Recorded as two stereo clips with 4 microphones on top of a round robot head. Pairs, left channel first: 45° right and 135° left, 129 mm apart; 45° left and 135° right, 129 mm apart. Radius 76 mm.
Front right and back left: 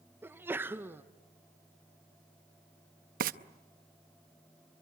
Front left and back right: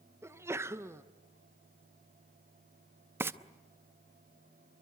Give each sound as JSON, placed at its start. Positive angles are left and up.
{"t": 0.2, "sound": "a sneeze", "azimuth_deg": -175, "distance_m": 0.9}
{"t": 3.2, "sound": "frying", "azimuth_deg": 150, "distance_m": 0.7}